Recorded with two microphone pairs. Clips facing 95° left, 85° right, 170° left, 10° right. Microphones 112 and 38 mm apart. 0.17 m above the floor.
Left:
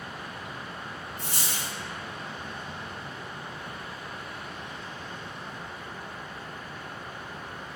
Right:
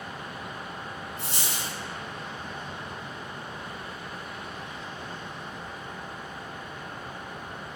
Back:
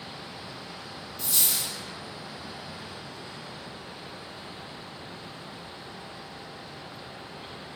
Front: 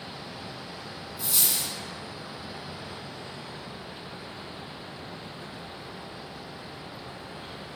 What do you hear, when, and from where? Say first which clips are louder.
1.2 s a dropped coin: even, even; 70° left, 0.9 m